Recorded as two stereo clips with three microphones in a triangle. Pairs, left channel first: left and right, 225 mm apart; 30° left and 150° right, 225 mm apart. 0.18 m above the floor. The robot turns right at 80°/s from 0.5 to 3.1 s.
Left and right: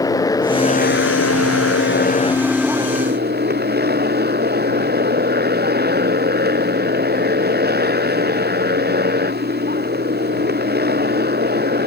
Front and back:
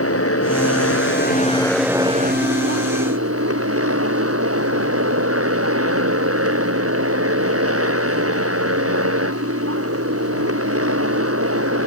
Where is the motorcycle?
15° left; by 11.9 s 135° right.